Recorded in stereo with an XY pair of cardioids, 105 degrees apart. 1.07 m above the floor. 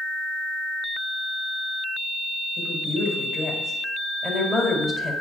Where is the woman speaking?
15° left, 4.5 m.